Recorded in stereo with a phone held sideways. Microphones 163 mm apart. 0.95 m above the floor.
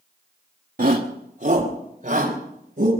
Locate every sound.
0.8 s a shout: 60° right (ahead or behind), 1.1 m; by 2.9 s 50° right (ahead or behind), 4.5 m